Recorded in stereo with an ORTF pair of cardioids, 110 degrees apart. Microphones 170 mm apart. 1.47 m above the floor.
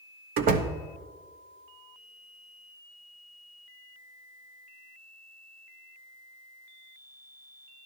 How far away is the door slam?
About 1.2 m.